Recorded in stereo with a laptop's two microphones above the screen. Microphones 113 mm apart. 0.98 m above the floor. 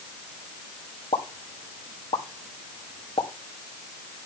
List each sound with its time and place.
1.1 s a pop: 55° left (ahead or behind), 1.8 m